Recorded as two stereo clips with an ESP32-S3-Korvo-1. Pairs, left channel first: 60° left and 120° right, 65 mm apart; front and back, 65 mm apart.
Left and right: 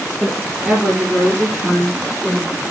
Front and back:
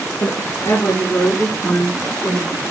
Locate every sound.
0.2 s a woman speaking: 45° right, 5 m; by 2.6 s 20° right, 6.5 m